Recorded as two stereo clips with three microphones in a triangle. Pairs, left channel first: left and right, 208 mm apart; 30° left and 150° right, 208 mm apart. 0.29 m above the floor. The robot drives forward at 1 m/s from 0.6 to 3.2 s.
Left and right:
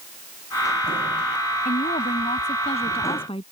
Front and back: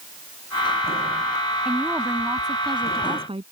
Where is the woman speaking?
125° left; by 3.4 s 150° left.